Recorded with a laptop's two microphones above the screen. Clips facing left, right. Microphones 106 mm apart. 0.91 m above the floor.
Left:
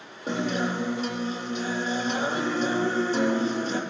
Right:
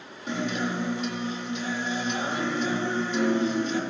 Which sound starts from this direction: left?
A guitar, at 0.3 s.